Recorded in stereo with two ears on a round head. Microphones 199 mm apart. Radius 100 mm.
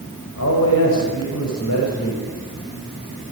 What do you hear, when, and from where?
0.4 s a man speaking: 75° left (ahead or behind), 5 m